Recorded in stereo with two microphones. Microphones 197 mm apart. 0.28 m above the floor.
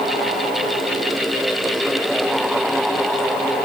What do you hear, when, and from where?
Only background noise.